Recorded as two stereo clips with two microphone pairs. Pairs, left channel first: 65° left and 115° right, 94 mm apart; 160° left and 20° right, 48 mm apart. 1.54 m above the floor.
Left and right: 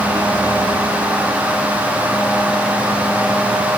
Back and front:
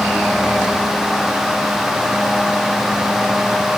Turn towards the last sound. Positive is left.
No sound to turn to.